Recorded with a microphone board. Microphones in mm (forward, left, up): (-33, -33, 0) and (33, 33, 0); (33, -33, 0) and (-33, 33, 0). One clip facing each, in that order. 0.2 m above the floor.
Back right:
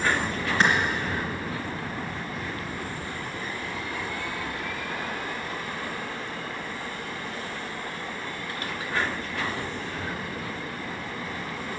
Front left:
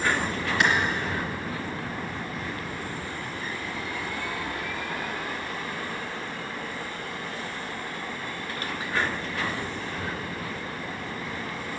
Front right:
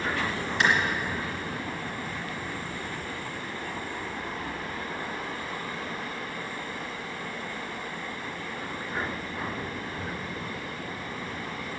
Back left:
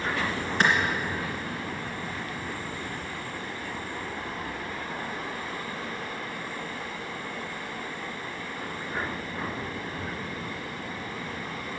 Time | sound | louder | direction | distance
0.6 | a clap | back right 1 dB, back left 1 dB | 175° left | 2.5 m